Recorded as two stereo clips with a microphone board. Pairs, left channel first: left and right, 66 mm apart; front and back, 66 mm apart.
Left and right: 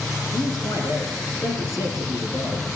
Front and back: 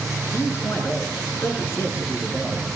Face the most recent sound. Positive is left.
turn(degrees=55)